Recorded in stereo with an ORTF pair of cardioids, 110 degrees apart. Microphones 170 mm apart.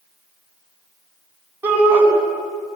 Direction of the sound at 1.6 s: 10° right.